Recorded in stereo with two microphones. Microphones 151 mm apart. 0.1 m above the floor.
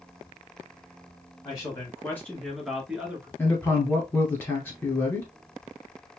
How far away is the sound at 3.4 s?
About 1.8 m.